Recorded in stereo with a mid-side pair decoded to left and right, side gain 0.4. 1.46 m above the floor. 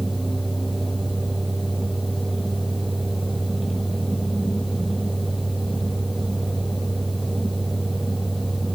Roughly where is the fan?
Ahead.